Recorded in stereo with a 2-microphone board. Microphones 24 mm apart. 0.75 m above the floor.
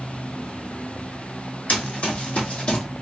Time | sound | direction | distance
1.7 | running footsteps | 65° left (ahead or behind) | 2 m